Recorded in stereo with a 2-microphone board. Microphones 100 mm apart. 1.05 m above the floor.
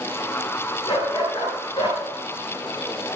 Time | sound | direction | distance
0.9 | a dog barking | 55° left (ahead or behind) | 8.5 m